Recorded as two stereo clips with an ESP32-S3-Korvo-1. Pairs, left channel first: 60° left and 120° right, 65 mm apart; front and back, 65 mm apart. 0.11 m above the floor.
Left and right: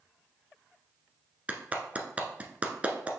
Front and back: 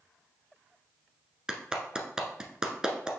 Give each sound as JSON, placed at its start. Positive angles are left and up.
{"t": 1.5, "sound": "a clap", "azimuth_deg": -125, "distance_m": 1.1}